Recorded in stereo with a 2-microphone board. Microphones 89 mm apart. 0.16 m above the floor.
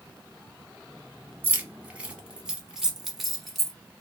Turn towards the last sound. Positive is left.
turn(degrees=5)  # may be behind; listen again after turning